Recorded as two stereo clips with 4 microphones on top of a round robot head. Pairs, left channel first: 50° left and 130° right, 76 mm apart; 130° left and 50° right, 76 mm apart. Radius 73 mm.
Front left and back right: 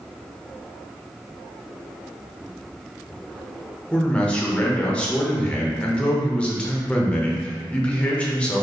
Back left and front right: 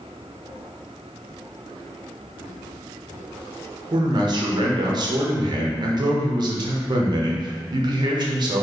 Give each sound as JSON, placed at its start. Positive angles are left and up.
{"t": 3.9, "sound": "a man speaking", "azimuth_deg": -25, "distance_m": 0.9}